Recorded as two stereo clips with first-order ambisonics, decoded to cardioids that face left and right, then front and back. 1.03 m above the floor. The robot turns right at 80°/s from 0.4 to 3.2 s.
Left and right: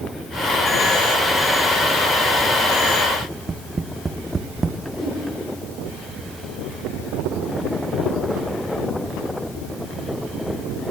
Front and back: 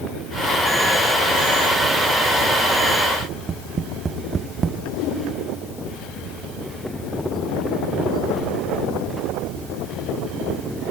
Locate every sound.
3.2 s tapping: 140° right, 0.7 m
4.9 s a whoosh: straight ahead, 10 m